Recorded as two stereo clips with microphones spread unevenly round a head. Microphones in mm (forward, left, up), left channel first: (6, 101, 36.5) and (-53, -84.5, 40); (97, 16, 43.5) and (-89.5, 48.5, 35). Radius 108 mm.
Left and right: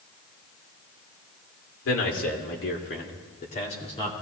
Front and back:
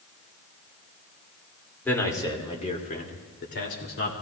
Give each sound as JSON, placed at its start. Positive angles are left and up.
{"t": 1.9, "sound": "a man speaking", "azimuth_deg": 70, "distance_m": 2.5}